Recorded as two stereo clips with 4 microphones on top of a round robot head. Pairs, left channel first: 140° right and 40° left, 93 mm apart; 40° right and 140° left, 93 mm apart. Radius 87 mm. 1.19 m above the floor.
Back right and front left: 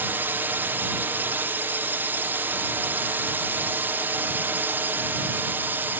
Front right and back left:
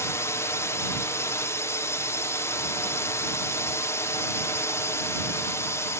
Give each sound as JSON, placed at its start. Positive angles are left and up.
{"t": 0.0, "sound": "a drone", "azimuth_deg": -10}